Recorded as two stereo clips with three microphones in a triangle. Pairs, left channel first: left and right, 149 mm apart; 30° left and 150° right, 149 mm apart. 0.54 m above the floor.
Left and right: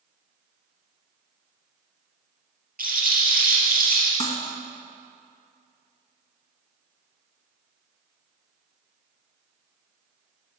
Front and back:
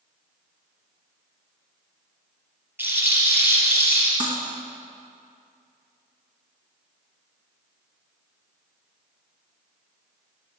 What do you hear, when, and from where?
2.8 s a rattle: 75° right, 5 m
4.2 s cutlery clinking: 155° left, 2 m